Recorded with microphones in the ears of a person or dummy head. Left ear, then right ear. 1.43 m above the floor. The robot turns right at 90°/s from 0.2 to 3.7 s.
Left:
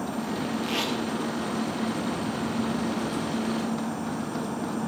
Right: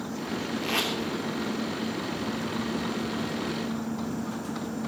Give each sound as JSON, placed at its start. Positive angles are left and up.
{"t": 0.6, "sound": "tape being pulled", "side_deg": -10, "distance_m": 3.0}